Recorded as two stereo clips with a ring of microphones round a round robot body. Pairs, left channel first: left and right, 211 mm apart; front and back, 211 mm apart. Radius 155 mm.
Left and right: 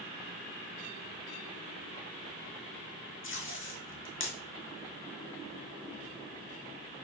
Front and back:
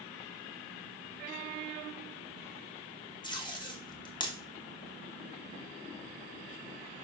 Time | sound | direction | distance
3.2 | tape being pulled | 70° left | 1.5 m